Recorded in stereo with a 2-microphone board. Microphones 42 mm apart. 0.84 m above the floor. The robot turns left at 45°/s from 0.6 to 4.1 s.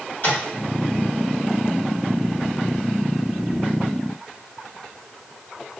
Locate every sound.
0.2 s tapping: 50° left (ahead or behind), 1.5 m